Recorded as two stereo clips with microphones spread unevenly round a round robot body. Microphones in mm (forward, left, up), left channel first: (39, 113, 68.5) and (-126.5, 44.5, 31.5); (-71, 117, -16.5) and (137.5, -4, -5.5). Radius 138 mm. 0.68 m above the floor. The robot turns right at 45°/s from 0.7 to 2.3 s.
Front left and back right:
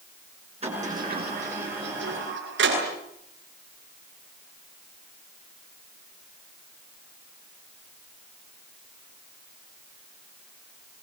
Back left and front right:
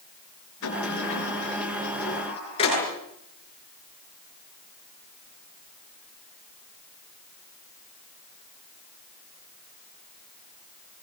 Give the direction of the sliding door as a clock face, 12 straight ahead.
7 o'clock.